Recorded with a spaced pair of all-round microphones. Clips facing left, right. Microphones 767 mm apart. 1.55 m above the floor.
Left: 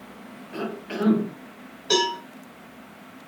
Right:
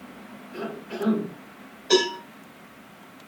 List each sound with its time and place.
0.5 s a cough: 85° left, 3 m
1.9 s a cowbell: 35° left (ahead or behind), 4.5 m